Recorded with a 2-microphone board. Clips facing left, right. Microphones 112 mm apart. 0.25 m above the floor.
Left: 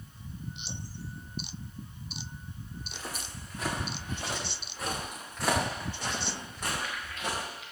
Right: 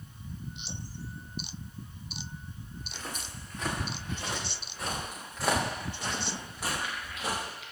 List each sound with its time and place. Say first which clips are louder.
2.8 s footsteps: even; 10° left (ahead or behind), 6.5 m; by 7.4 s 10° right (ahead or behind), 5 m